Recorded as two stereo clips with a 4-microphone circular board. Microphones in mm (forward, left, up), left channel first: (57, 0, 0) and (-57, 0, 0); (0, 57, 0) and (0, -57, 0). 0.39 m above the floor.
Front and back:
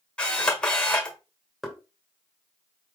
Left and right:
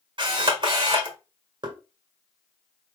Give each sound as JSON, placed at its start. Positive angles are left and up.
{"t": 0.2, "sound": "a camera shutter", "azimuth_deg": -80, "distance_m": 1.2}
{"t": 1.6, "sound": "knocking", "azimuth_deg": -95, "distance_m": 1.4}